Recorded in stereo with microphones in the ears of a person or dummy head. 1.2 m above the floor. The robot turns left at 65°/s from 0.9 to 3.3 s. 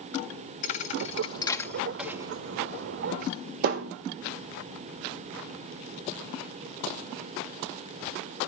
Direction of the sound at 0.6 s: 40° left (ahead or behind).